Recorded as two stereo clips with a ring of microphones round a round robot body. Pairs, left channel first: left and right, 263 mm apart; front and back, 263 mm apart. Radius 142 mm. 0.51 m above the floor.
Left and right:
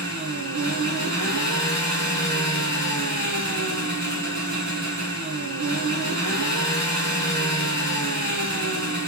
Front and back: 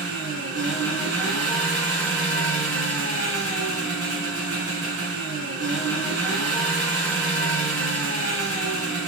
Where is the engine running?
135° right, 3 m.